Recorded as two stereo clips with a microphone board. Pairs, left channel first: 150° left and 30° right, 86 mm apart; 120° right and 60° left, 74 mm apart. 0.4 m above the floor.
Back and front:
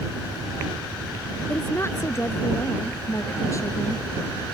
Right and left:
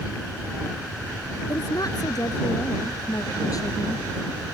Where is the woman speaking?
150° right; by 4.0 s 160° right.